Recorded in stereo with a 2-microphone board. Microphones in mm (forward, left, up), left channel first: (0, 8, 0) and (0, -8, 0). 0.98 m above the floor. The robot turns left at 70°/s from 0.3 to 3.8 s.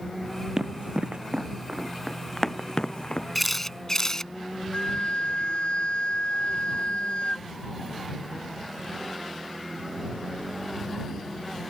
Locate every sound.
0.6 s running footsteps: 40° right (ahead or behind); by 3.2 s 70° left (ahead or behind)
3.4 s a camera shutter: straight behind; by 4.3 s 150° left
4.7 s a flute: 75° left (ahead or behind)